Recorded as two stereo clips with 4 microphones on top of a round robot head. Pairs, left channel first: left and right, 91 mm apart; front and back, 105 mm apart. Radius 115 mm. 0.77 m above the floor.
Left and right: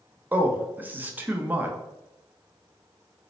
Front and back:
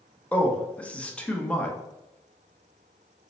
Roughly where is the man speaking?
Ahead right.